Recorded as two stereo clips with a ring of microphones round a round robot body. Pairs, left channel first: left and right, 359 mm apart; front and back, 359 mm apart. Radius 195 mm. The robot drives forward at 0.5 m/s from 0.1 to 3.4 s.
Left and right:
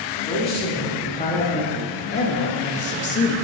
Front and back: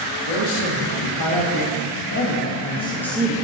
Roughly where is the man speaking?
Ahead.